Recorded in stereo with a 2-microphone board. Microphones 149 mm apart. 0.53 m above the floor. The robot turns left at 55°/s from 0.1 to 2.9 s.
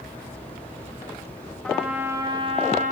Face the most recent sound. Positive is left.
turn(degrees=-65)